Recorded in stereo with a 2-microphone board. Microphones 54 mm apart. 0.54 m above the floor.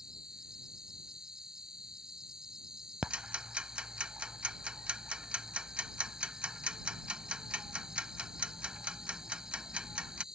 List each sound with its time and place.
0.0 s an insect: 10° right (ahead or behind)
3.0 s ticking: 20° right (ahead or behind)